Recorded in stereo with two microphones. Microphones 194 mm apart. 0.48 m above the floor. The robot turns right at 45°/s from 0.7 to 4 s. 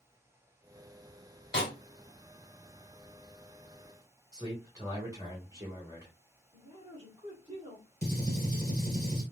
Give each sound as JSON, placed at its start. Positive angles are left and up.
{"t": 1.5, "sound": "a snare drum", "side_deg": 60, "distance_m": 2.0}
{"t": 4.3, "sound": "a man speaking", "side_deg": -20, "distance_m": 1.9}
{"t": 6.5, "sound": "a man speaking", "side_deg": -30, "distance_m": 1.5}
{"t": 8.0, "sound": "a gunshot", "side_deg": -50, "distance_m": 1.7}